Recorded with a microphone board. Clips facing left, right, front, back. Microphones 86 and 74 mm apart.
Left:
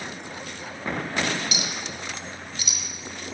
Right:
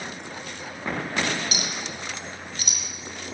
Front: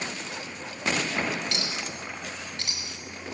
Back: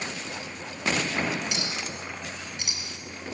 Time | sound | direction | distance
1.5 | a clink | 115° right | 1.4 m